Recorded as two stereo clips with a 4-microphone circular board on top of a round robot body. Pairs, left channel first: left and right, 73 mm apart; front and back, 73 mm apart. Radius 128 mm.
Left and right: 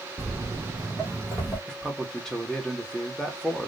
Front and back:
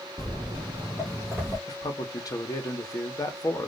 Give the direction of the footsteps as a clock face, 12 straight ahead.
3 o'clock.